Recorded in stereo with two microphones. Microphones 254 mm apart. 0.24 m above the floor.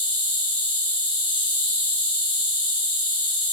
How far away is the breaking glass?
No breaking glass in this recording.